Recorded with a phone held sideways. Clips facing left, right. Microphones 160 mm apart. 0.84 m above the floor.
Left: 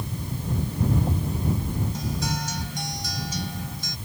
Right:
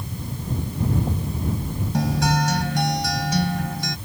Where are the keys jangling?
I don't hear keys jangling.